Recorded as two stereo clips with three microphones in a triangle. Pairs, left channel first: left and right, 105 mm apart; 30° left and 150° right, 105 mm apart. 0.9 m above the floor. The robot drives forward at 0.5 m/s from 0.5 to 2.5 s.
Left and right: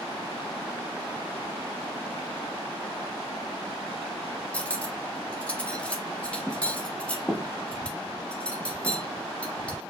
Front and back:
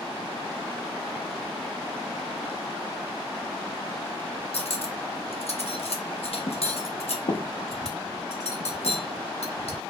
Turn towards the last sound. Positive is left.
turn(degrees=10)